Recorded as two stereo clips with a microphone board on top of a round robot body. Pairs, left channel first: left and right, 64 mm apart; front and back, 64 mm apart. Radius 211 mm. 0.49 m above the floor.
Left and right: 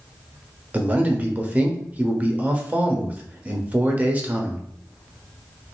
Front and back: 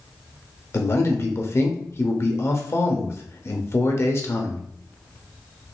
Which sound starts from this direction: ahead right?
A man speaking, at 0.7 s.